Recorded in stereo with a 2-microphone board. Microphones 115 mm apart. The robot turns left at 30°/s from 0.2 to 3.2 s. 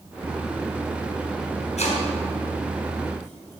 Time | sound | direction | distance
1.8 | chopping | 70° left (ahead or behind) | 5.5 m